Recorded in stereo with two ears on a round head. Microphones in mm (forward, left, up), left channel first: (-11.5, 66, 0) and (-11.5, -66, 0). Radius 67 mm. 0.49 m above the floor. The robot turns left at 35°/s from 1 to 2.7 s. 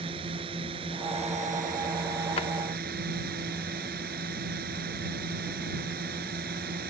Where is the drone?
40° right; by 6.9 s 95° right.